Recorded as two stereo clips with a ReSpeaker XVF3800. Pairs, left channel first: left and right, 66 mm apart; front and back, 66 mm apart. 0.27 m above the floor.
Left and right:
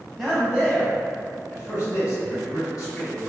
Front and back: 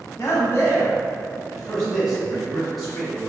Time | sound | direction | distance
0.2 | a man speaking | 15° left | 1.3 m